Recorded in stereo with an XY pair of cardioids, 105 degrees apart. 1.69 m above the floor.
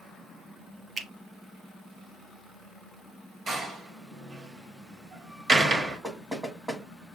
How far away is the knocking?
About 1.3 m.